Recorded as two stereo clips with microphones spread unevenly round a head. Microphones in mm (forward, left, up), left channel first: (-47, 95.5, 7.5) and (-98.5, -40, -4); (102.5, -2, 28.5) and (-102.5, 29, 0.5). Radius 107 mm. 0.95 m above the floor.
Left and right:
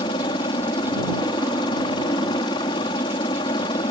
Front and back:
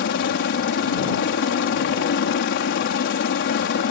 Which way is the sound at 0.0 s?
10° left.